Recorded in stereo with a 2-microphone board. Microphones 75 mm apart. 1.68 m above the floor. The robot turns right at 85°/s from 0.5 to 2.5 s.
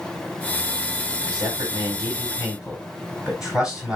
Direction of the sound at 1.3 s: 65° right (ahead or behind).